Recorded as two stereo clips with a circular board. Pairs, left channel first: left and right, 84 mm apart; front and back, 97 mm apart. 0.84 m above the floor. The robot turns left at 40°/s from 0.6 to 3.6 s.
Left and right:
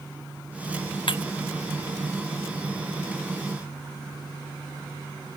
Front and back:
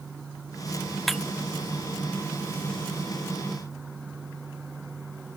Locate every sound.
1.1 s breaking glass: 90° left; by 1.2 s 80° left